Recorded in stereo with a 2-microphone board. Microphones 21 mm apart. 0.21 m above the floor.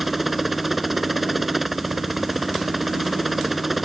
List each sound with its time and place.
0.0 s a helicopter: 5° right (ahead or behind)